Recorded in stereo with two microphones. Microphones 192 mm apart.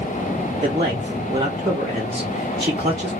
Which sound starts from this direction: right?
A man speaking, at 0.6 s.